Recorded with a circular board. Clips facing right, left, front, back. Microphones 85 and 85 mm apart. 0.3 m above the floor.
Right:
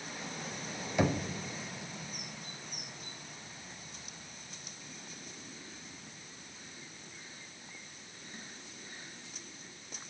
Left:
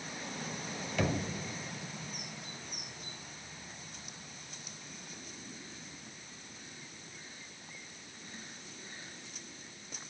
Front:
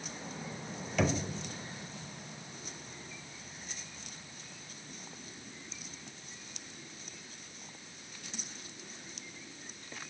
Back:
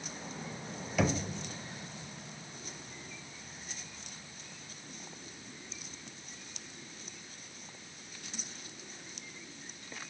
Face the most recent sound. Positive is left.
turn(degrees=-105)